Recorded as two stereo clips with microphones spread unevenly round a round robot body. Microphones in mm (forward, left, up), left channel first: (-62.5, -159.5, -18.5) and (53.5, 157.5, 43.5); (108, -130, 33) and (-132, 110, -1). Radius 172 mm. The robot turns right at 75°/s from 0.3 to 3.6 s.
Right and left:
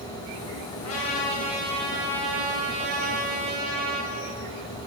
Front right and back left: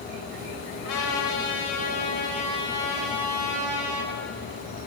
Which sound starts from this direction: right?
A trumpet, at 0.8 s.